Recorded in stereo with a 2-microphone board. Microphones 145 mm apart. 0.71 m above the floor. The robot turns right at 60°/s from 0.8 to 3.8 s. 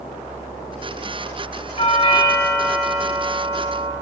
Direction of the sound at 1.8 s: 120° left.